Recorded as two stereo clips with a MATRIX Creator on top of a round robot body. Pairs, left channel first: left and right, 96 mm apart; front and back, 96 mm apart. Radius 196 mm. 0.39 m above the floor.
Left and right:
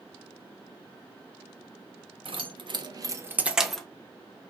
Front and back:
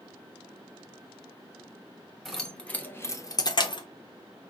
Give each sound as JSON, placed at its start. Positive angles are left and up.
{"t": 2.2, "sound": "keys jangling", "azimuth_deg": -90, "distance_m": 1.4}